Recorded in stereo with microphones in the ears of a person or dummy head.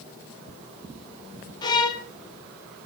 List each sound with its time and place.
1.6 s a violin: 20° left (ahead or behind), 0.7 m